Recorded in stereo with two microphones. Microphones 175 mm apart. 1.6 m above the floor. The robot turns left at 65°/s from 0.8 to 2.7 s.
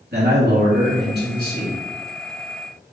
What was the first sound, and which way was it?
A man speaking, 85° right.